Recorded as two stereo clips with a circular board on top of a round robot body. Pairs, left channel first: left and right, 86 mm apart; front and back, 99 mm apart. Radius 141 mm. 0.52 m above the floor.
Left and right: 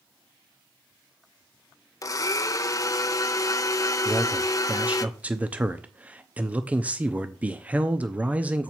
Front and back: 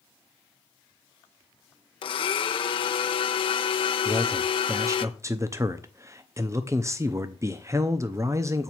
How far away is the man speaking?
About 0.8 m.